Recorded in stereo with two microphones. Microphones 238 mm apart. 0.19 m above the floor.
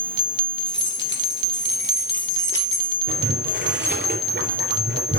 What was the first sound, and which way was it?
Keys jangling, 50° left (ahead or behind).